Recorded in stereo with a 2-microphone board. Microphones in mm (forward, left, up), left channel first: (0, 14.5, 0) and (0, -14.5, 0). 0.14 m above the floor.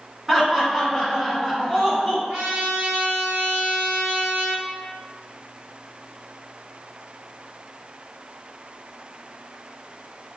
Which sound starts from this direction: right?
A trumpet, at 2.3 s.